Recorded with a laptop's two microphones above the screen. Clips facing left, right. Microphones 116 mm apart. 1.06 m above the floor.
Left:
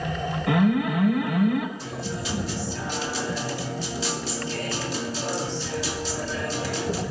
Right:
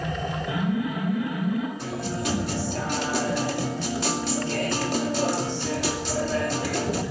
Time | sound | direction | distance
0.5 | an alarm | 85° left | 4.5 m
1.8 | a guitar | 60° right (ahead or behind) | 2.5 m